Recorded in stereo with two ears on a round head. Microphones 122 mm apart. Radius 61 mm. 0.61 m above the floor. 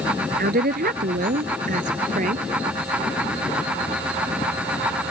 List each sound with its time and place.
0.4 s a woman speaking: 80° right; by 2.5 s 65° right (ahead or behind)